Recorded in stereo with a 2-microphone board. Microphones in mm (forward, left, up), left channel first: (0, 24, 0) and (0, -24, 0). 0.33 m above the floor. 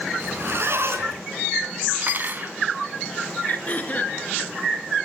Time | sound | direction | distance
0.2 | a zipper | 55° right (ahead or behind) | 4 m
2.0 | cutlery clinking | 45° right (ahead or behind) | 1.8 m
3.5 | throat clearing | 40° left (ahead or behind) | 4.5 m